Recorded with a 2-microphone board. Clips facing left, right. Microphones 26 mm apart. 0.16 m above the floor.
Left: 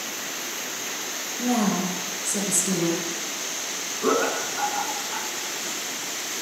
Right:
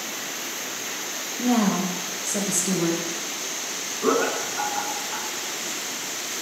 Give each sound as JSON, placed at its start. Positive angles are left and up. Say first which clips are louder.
{"t": 1.4, "sound": "a woman speaking", "louder": "right 2 dB", "side_deg": -30, "distance_m": 1.7}
{"t": 4.0, "sound": "laughter", "louder": "right 1 dB", "side_deg": -5, "distance_m": 1.4}